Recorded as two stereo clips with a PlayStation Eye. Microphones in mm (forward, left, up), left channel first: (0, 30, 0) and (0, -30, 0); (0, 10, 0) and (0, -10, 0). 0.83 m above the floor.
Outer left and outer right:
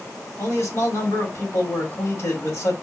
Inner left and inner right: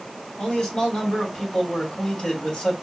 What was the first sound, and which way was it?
A man speaking, 50° left (ahead or behind).